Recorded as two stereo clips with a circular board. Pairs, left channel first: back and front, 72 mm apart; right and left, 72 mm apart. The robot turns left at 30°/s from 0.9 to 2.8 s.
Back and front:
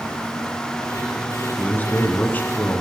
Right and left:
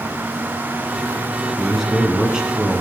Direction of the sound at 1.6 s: Straight behind.